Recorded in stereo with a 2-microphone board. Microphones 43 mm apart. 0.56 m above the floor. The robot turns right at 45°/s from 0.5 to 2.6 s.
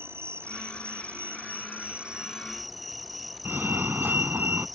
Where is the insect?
95° right; by 4.8 s straight ahead.